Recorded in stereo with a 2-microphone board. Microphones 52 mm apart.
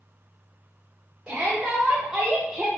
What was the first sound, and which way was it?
A shout, 15° right (ahead or behind).